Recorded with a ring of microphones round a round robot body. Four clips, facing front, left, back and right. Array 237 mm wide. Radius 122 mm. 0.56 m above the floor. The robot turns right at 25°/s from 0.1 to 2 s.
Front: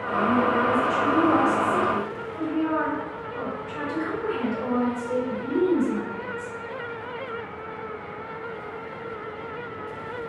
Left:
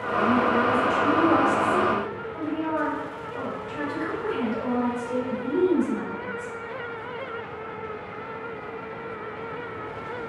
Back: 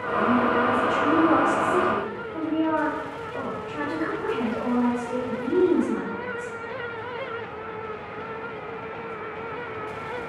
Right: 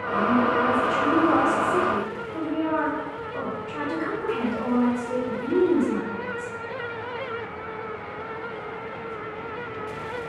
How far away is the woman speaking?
About 2.0 m.